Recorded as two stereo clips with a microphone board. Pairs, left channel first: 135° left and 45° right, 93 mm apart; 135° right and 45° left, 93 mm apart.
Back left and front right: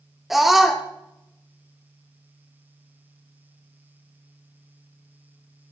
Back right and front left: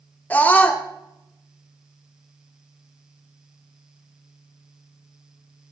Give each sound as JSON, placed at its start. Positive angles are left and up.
{"t": 0.3, "sound": "a scream", "azimuth_deg": -130, "distance_m": 0.7}